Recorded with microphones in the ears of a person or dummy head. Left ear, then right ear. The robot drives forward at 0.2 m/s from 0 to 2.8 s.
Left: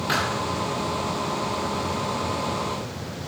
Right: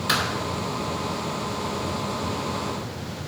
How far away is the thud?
About 4 m.